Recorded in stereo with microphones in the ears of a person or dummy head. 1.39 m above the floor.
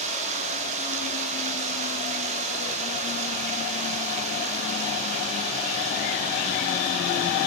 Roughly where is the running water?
Right.